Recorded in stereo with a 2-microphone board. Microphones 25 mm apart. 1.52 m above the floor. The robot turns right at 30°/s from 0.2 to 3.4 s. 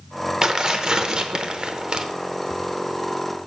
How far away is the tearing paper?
About 0.7 m.